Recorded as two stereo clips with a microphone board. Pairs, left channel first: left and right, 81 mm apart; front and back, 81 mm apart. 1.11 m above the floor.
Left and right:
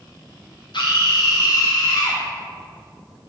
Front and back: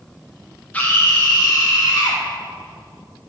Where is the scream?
70° left, 0.7 m; by 2.2 s 50° left, 1.4 m.